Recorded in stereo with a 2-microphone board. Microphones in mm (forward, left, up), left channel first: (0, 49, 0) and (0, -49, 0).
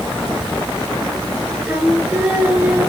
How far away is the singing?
About 2.5 m.